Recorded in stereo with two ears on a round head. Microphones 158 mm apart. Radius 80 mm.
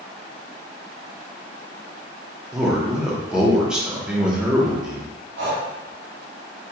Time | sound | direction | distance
2.5 | a man speaking | 5° right (ahead or behind) | 0.7 m
5.4 | breathing | 75° right (ahead or behind) | 1.3 m